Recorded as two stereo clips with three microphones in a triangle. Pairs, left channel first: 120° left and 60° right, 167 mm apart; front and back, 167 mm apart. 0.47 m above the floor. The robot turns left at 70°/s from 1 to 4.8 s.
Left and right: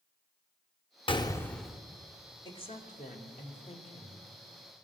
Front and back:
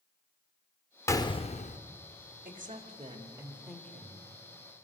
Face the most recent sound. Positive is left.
turn(degrees=15)